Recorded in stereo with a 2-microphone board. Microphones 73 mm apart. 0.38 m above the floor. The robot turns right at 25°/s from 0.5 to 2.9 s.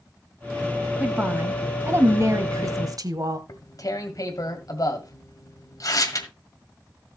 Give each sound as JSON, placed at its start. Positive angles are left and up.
{"t": 1.0, "sound": "a woman speaking", "azimuth_deg": -160, "distance_m": 1.7}
{"t": 3.5, "sound": "tearing paper", "side_deg": 50, "distance_m": 1.7}